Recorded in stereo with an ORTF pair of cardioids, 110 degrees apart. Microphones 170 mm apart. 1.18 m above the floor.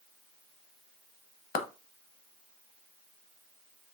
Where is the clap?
55° left, 0.8 m.